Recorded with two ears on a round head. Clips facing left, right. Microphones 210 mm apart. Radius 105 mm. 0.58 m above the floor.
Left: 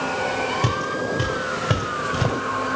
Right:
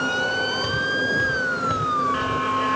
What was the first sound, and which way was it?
Footsteps, 60° left (ahead or behind).